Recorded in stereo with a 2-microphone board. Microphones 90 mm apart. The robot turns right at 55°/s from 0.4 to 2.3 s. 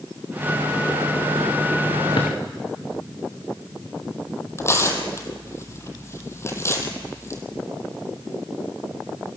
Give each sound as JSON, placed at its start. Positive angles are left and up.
{"t": 2.2, "sound": "a drawer", "side_deg": 70, "distance_m": 5.0}
{"t": 4.6, "sound": "tearing paper", "side_deg": 30, "distance_m": 3.0}